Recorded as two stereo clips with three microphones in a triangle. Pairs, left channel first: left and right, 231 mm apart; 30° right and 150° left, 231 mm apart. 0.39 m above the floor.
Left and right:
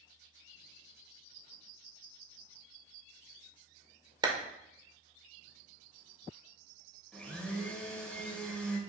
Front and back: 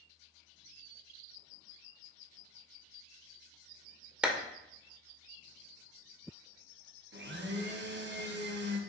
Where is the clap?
130° right, 0.6 m.